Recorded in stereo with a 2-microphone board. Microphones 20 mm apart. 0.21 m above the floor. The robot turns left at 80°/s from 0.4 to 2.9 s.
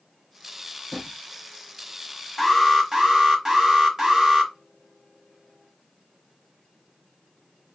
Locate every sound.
0.9 s a drawer: 20° left (ahead or behind), 1.8 m; by 1.2 s centre (ahead or behind), 1.8 m
2.4 s an alarm: 15° right, 1.2 m; by 4.5 s 55° right, 1.2 m